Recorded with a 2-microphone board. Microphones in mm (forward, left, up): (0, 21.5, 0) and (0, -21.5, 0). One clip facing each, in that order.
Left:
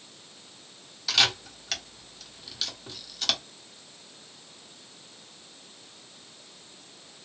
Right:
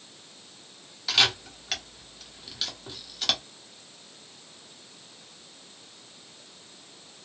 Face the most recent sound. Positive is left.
turn(degrees=-10)  # may be behind; listen again after turning